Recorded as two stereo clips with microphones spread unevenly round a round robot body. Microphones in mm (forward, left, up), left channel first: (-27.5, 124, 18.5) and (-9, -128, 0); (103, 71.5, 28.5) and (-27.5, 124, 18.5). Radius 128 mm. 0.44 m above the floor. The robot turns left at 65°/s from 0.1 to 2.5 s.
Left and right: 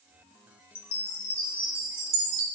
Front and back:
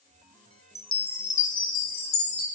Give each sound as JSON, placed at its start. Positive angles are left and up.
{"t": 0.8, "sound": "a chime", "azimuth_deg": 50, "distance_m": 1.0}